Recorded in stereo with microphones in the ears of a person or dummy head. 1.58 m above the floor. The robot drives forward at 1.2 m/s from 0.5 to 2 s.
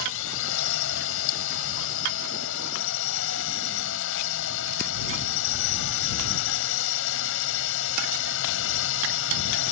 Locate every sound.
0.0 s a drone: 75° left (ahead or behind); by 9.7 s 70° left (ahead or behind)